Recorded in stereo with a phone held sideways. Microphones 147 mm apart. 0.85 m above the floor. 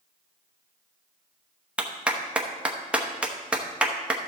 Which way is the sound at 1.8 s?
10° right (ahead or behind).